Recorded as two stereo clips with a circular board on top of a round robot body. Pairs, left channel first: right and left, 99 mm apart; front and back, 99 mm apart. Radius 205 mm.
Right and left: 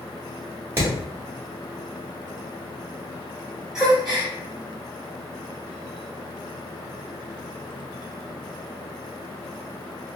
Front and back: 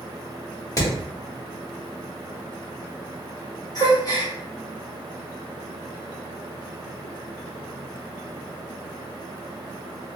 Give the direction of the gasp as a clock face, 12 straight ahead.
12 o'clock.